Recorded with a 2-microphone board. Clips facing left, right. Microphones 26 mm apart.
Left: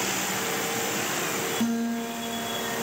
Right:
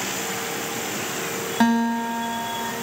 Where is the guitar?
70° right (ahead or behind), 1.4 m.